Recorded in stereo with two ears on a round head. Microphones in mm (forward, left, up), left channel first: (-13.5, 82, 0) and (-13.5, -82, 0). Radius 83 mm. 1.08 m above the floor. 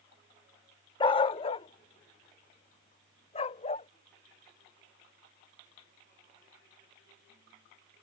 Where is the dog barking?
25° left (ahead or behind); by 3.9 s 35° left (ahead or behind).